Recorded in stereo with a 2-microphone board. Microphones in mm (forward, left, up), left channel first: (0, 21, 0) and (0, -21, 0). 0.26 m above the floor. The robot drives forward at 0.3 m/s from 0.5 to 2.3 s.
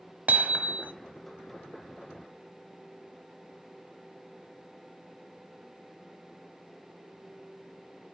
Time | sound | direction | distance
0.3 | hammering | 40° right (ahead or behind) | 1.5 m